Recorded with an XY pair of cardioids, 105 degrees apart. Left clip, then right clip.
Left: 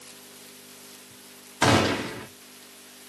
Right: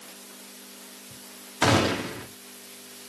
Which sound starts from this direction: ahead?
A gunshot, at 1.6 s.